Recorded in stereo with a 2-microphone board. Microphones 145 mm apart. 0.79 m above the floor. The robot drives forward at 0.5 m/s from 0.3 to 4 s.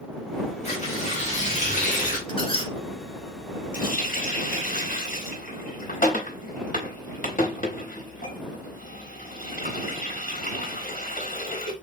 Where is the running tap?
70° left (ahead or behind), 0.8 m; by 11.7 s 65° left (ahead or behind), 0.9 m.